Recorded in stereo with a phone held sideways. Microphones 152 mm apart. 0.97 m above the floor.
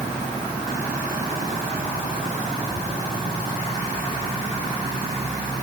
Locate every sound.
Only background noise.